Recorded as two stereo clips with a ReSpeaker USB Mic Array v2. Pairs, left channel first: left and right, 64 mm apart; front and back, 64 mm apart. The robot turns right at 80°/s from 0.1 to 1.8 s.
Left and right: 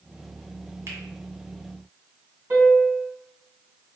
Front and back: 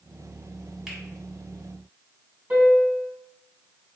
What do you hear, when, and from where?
0.9 s a finger snap: 100° right, 1.4 m; by 1.0 s 90° right, 1.4 m
2.5 s a piano: 125° right, 2 m